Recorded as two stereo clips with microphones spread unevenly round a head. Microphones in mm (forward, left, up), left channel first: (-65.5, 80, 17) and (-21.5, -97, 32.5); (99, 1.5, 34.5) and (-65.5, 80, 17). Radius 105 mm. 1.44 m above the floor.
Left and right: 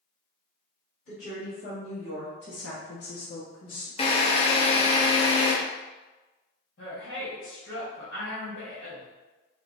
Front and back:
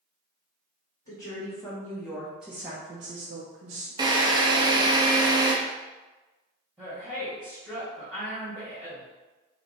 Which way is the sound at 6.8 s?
65° left.